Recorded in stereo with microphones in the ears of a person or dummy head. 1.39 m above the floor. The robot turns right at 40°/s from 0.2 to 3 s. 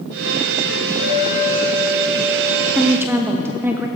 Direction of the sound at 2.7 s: Centre (ahead or behind).